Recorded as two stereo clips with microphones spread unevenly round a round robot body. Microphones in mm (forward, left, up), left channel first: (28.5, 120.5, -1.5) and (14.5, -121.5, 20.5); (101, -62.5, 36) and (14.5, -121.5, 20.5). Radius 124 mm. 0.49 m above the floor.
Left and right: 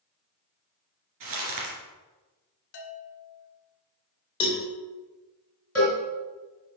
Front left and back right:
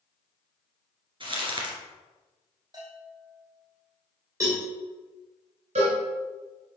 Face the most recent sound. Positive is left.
turn(degrees=175)